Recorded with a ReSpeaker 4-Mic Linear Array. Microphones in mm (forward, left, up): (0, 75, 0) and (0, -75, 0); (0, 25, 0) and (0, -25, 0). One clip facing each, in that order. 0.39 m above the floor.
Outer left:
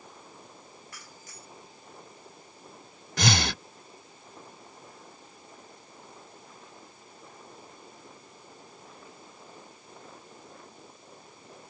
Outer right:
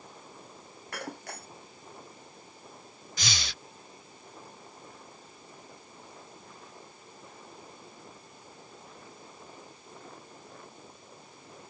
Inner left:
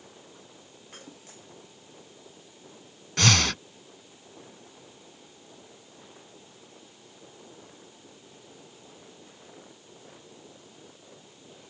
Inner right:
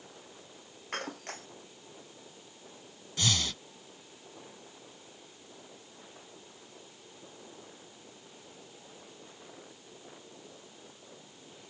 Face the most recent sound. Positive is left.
turn(degrees=85)